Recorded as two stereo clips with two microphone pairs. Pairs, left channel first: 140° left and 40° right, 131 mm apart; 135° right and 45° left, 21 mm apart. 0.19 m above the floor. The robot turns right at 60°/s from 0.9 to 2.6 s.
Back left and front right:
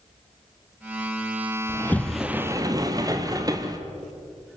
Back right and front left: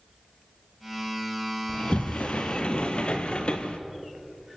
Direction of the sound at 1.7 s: 155° right.